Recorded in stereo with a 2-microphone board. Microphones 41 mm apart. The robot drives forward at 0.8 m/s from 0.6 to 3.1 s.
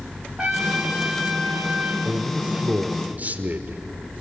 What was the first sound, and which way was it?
A trumpet, 20° right (ahead or behind).